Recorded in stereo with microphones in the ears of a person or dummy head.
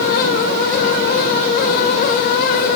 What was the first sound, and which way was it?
Only background noise.